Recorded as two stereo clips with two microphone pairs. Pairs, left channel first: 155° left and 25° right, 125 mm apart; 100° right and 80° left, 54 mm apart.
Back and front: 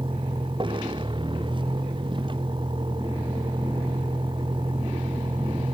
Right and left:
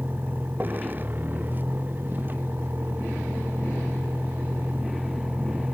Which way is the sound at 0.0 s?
25° left.